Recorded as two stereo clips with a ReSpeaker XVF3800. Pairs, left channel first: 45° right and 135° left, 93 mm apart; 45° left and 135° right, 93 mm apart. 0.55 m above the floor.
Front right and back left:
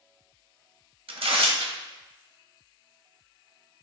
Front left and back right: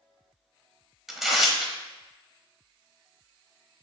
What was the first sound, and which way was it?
Tearing paper, 140° left.